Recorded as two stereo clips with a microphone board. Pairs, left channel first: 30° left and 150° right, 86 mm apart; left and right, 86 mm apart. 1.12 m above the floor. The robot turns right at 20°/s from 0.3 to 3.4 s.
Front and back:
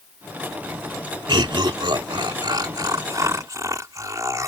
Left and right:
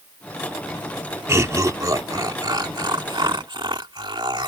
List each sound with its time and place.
1.3 s laughter: 145° right; by 4.5 s 100° right